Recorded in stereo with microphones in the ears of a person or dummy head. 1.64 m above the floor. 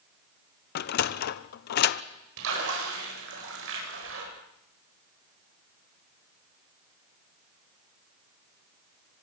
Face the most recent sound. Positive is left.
turn(degrees=-75)  # may be behind; listen again after turning